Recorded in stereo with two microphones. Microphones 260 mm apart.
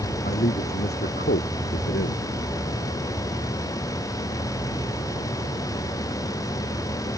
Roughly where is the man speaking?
Left.